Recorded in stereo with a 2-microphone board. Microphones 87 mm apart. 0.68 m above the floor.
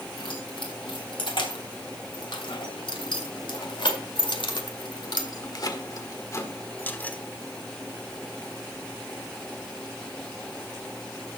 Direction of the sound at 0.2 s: 75° left (ahead or behind).